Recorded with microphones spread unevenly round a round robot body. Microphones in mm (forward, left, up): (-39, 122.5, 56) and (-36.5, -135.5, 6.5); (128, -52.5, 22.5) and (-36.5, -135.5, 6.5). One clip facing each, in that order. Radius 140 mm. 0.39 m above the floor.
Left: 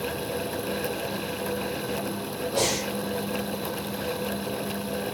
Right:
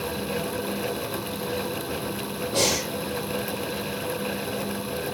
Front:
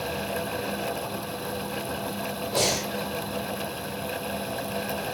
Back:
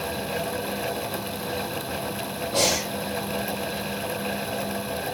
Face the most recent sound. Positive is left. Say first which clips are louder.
# right 2 dB, back 2 dB
turn(degrees=-65)